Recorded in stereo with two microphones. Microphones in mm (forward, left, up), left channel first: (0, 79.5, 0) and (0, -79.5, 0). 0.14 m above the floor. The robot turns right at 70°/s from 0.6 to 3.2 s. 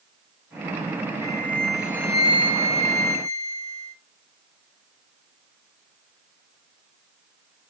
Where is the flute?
145° left, 0.9 m; by 4.0 s 75° right, 0.9 m.